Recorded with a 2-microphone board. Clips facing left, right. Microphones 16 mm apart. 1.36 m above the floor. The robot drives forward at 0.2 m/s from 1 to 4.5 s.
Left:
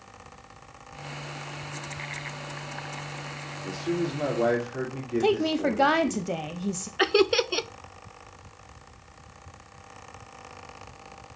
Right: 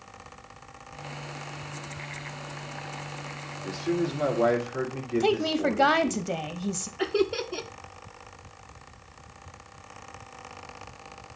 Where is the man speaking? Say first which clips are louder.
Right 1 dB; 15° left (ahead or behind), 2.5 m.